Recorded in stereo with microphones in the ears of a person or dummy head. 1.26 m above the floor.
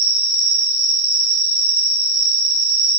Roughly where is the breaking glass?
No breaking glass in this recording.